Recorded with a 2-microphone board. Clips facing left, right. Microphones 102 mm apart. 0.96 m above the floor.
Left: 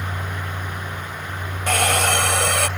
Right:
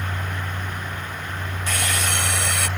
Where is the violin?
No violin in this recording.